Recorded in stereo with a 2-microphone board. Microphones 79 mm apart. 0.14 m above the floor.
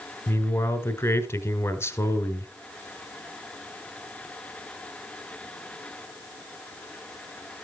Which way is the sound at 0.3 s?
35° left (ahead or behind).